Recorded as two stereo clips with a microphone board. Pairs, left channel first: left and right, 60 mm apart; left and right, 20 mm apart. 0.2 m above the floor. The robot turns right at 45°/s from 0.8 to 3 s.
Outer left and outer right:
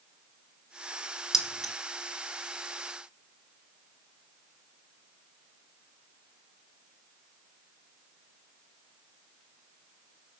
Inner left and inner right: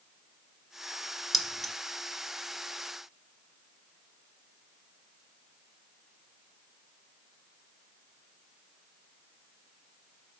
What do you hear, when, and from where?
1.3 s keys jangling: 5° right (ahead or behind), 0.9 m; by 1.7 s 5° left (ahead or behind), 0.9 m